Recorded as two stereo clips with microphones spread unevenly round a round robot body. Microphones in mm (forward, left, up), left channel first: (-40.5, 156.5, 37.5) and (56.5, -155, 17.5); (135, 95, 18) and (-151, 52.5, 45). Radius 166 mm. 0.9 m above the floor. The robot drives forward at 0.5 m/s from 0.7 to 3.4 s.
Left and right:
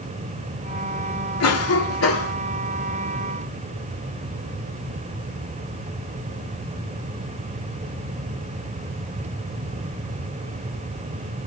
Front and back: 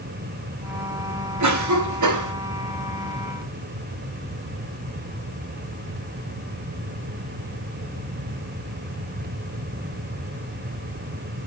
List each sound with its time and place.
1.4 s a cough: 155° left, 2 m; by 2.3 s 160° left, 2.5 m